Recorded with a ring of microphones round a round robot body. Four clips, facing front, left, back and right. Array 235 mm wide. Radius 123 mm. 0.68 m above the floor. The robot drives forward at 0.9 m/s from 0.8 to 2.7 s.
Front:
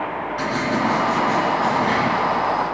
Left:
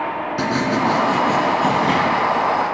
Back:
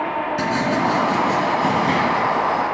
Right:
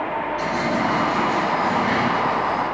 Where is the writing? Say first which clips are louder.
Left 5 dB, even; 115° left, 2.5 m; by 2.0 s 130° left, 3.5 m.